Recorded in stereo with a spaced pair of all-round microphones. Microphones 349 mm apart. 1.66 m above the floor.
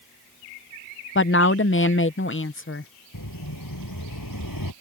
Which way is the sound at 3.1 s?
70° left (ahead or behind).